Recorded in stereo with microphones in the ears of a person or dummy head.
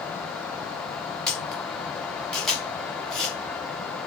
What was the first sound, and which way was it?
A camera shutter, 5° left (ahead or behind).